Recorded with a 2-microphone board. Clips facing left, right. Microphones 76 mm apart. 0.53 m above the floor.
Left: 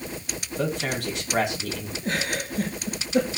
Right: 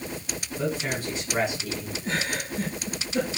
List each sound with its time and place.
0.6 s a man speaking: 75° left (ahead or behind), 5.5 m
2.0 s a giggle: 60° left (ahead or behind), 7.5 m